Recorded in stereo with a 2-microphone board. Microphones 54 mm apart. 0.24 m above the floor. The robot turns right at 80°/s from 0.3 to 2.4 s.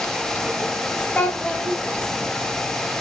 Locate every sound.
1.1 s a child speaking: 25° left (ahead or behind), 1.0 m; by 1.8 s 20° left (ahead or behind), 1.0 m